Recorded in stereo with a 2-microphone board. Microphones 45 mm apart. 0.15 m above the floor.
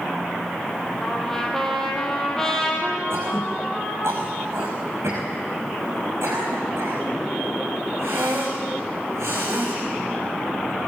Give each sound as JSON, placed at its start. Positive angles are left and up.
{"t": 1.0, "sound": "a trumpet", "side_deg": 10, "distance_m": 4.0}
{"t": 3.1, "sound": "throat clearing", "side_deg": -70, "distance_m": 5.5}